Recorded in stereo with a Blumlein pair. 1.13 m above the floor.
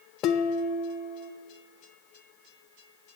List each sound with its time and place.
0.2 s dishes clattering: 35° left, 0.6 m